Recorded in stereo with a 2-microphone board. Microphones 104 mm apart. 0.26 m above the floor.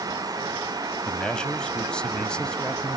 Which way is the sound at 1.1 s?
10° left (ahead or behind).